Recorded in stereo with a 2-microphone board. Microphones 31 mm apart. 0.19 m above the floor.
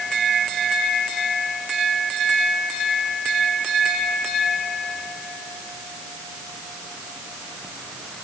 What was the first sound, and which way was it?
Only background noise.